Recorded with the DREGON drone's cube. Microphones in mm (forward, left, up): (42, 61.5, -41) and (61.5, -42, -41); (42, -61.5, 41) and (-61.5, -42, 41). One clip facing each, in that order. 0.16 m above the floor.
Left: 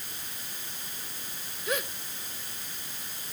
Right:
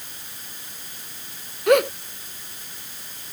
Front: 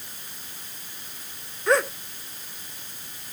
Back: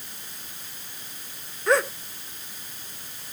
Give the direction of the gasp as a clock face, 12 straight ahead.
3 o'clock.